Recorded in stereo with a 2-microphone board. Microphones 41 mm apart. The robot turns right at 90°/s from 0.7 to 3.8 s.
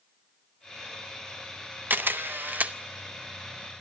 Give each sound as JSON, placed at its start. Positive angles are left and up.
{"t": 1.9, "sound": "a camera shutter", "azimuth_deg": -115, "distance_m": 0.5}